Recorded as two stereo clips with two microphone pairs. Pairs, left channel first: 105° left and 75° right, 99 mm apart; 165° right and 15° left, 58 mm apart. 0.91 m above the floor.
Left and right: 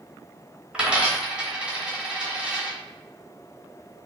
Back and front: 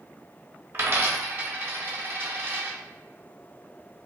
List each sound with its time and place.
0.7 s a dropped coin: straight ahead, 0.8 m